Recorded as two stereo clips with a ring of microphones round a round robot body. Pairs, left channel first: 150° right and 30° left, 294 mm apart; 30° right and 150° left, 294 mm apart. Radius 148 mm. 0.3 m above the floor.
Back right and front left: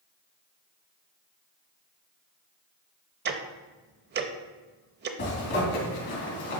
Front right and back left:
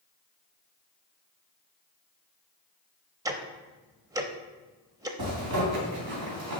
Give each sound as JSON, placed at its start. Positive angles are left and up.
{"t": 3.2, "sound": "ticking", "azimuth_deg": 75, "distance_m": 0.6}
{"t": 5.2, "sound": "a zipper", "azimuth_deg": 165, "distance_m": 3.0}